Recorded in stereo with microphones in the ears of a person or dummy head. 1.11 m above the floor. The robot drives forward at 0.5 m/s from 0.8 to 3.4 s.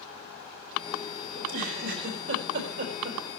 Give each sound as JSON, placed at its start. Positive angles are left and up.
{"t": 1.4, "sound": "a giggle", "side_deg": -70, "distance_m": 4.0}